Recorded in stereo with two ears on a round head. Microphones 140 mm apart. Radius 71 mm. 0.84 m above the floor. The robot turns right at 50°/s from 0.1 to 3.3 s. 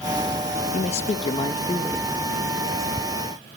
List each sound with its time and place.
0.7 s a man speaking: 90° left, 0.8 m; by 2.1 s 160° left, 0.8 m